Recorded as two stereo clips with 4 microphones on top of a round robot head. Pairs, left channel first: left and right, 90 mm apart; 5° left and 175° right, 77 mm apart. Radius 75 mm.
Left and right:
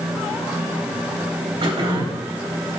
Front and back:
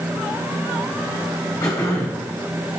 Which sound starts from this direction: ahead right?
Throat clearing, at 1.6 s.